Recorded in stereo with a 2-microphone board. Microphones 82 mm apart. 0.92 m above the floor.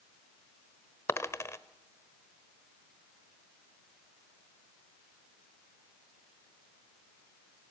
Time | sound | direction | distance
1.1 | a dropped coin | 35° left (ahead or behind) | 1.2 m